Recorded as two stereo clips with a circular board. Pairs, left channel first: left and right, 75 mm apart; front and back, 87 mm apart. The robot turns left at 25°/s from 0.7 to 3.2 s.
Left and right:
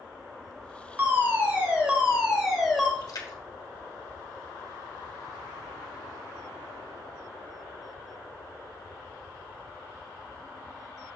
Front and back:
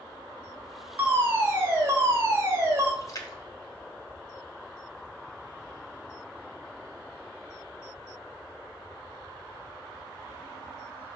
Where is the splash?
55° left, 1.2 m; by 5.1 s 50° left, 1.2 m.